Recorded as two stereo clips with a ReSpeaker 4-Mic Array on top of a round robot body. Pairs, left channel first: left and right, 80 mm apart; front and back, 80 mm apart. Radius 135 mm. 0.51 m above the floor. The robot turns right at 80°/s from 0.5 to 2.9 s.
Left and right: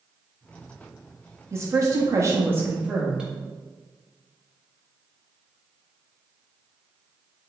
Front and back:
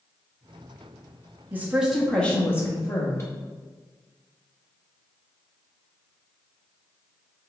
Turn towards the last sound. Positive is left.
turn(degrees=-15)